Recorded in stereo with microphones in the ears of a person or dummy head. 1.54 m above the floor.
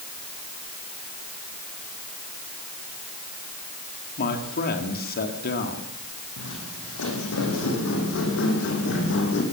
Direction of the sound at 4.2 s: 50° left (ahead or behind).